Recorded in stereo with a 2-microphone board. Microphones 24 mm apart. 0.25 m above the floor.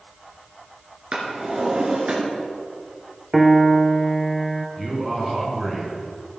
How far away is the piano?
About 0.7 m.